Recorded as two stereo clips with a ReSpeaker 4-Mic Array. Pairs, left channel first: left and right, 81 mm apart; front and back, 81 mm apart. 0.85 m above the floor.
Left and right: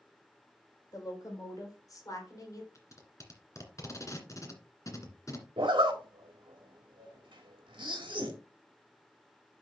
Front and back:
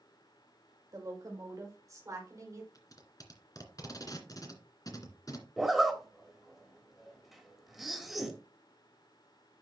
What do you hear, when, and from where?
0.9 s a woman speaking: 135° left, 4 m; by 2.6 s 130° left, 3 m
2.8 s tape being pulled: 40° left, 2 m
5.6 s a zipper: 95° right, 1.9 m